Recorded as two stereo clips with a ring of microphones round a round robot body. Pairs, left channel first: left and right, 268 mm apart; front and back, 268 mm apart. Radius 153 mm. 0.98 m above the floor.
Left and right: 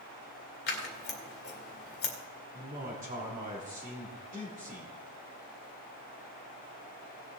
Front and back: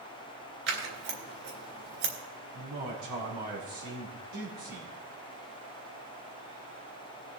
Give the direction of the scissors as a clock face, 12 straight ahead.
7 o'clock.